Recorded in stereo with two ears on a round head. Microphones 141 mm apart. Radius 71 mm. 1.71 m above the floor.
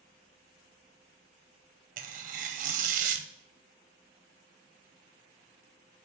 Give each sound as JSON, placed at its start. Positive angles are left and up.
{"t": 2.0, "sound": "tearing paper", "side_deg": -50, "distance_m": 0.7}